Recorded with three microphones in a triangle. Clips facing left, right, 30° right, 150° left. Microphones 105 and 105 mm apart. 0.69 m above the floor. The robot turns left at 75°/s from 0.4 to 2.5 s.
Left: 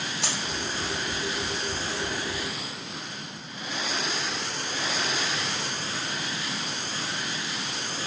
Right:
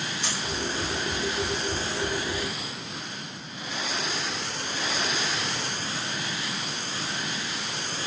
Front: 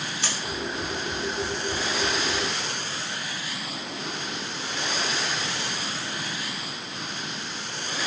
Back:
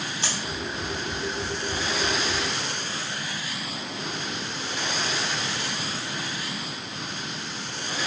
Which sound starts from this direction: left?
A dropped coin, at 0.2 s.